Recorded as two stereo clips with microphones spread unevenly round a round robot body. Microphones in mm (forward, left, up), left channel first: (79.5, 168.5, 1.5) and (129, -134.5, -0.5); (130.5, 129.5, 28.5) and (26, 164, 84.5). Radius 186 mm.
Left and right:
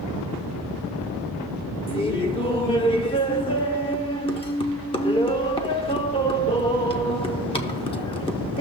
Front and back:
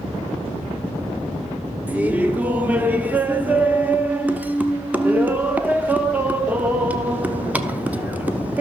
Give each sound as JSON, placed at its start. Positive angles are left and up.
{"t": 1.9, "sound": "laughter", "azimuth_deg": 40, "distance_m": 0.8}